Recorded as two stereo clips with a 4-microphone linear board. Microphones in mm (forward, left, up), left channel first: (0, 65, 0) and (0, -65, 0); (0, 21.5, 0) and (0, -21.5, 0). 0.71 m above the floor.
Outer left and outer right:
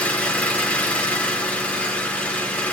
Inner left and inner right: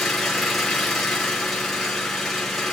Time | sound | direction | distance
0.0 | an engine running | 10° left (ahead or behind) | 3 m